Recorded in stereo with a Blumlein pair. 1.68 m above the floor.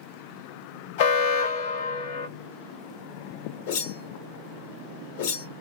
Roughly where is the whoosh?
Ahead left.